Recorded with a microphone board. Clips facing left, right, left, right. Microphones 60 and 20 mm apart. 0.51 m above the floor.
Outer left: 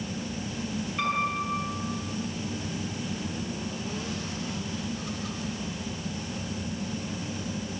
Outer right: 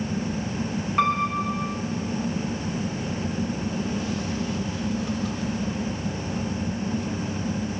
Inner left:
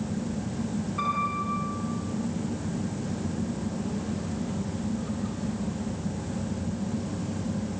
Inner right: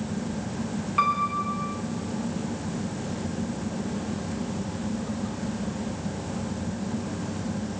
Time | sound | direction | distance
1.0 | a piano | 80° right | 7 m